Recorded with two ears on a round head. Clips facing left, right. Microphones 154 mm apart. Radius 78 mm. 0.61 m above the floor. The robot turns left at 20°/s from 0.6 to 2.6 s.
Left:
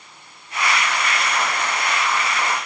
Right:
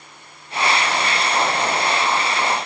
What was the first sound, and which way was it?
Only background noise.